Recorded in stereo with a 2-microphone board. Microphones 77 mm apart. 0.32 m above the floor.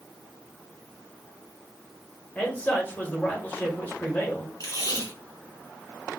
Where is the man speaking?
20° left (ahead or behind), 1.3 m.